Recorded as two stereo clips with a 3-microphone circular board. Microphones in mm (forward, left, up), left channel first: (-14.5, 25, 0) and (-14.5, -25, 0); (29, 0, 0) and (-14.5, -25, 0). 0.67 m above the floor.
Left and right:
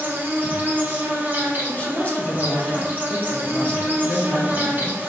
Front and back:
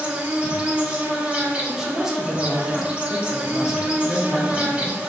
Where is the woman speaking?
135° left, 0.8 m.